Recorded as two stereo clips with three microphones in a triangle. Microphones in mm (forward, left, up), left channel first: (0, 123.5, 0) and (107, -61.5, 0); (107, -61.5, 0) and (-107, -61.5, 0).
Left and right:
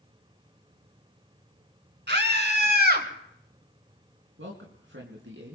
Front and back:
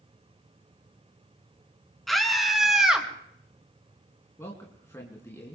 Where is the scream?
90° right, 3.5 m; by 3.1 s 95° right, 2.5 m.